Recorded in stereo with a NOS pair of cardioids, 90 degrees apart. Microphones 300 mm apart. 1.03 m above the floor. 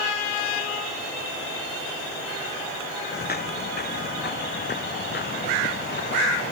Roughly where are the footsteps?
Ahead left.